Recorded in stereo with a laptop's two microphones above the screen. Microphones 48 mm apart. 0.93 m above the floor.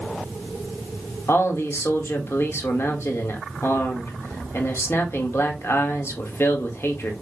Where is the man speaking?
65° left (ahead or behind), 1.6 m.